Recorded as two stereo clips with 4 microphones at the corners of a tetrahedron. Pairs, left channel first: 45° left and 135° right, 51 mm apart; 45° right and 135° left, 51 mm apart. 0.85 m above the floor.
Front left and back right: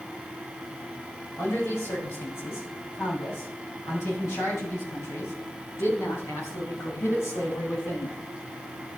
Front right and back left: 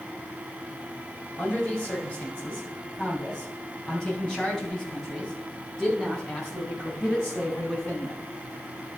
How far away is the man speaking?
About 5.5 m.